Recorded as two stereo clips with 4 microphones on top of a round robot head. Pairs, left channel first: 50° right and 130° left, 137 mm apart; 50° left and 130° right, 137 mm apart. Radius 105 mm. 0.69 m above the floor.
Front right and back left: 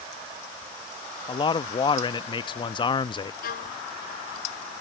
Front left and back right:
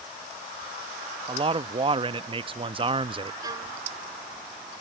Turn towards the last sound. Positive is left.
turn(degrees=-65)